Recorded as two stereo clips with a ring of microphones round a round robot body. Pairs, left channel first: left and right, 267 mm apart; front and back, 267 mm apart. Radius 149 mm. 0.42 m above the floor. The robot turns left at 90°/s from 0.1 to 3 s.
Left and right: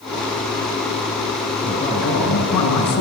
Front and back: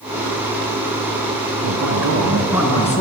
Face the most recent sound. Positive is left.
turn(degrees=55)